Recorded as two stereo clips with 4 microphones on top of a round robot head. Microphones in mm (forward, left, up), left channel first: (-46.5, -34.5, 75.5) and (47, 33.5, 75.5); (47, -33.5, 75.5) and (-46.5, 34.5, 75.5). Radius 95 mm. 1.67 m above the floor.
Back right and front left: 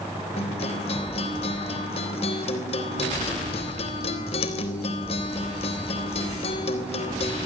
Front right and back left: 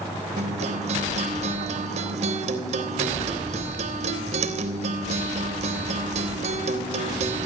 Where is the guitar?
175° left, 3.5 m.